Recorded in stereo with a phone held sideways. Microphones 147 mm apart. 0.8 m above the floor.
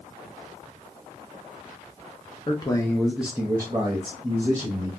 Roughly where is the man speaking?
Left.